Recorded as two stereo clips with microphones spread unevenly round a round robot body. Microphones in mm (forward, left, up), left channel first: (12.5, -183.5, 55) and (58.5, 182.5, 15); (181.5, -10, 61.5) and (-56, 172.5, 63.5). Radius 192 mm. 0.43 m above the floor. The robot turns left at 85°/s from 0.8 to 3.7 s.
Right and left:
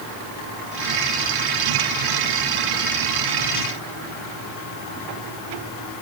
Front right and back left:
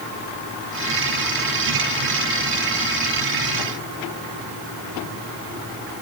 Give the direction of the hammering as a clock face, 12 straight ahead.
I don't hear hammering.